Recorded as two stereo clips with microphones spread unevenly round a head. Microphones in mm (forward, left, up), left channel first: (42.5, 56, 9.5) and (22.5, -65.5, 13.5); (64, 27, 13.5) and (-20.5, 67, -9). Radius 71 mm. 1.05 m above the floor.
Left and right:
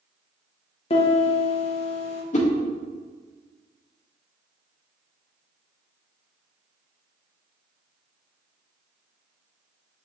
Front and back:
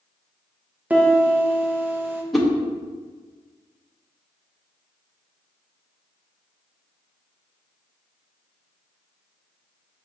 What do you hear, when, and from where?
0.9 s a piano: 95° left, 0.9 m
2.3 s a whoosh: 65° left, 0.9 m